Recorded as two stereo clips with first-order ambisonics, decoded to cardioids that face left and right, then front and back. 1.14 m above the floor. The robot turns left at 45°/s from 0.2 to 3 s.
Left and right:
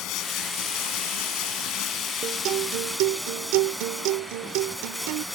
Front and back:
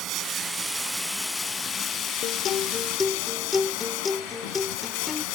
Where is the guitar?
40° right; by 5.2 s 75° right.